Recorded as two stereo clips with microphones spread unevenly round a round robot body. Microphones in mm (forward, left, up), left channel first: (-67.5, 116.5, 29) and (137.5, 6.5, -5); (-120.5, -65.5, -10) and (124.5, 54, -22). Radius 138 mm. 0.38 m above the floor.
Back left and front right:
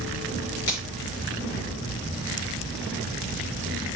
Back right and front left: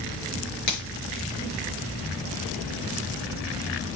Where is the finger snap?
160° right, 7 m.